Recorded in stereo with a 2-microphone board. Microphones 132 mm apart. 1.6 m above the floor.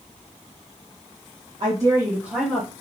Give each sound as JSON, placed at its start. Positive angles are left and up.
{"t": 1.6, "sound": "a woman speaking", "side_deg": -35, "distance_m": 1.2}